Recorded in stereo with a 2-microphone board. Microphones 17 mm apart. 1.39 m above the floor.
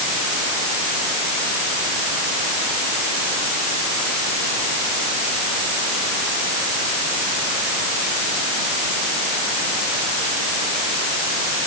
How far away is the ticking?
No ticking in this recording.